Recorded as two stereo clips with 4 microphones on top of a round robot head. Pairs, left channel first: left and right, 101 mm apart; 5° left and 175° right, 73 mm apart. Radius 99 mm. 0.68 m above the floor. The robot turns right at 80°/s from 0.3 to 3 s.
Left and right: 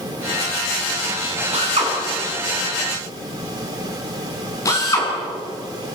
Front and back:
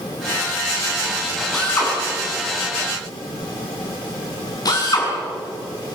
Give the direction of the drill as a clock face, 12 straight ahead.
3 o'clock.